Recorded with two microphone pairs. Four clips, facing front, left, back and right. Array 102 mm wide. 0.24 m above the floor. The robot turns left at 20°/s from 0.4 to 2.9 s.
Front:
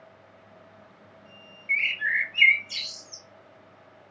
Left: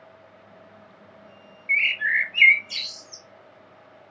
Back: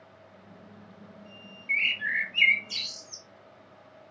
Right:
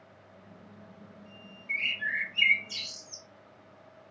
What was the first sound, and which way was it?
A bird, 80° left.